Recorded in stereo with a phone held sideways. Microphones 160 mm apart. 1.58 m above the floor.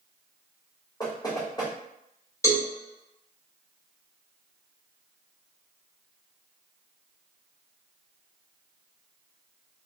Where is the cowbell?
20° left (ahead or behind), 1.6 m.